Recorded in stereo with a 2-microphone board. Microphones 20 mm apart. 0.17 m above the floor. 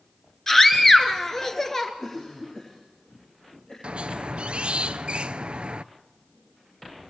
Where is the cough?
35° left (ahead or behind), 5.5 m.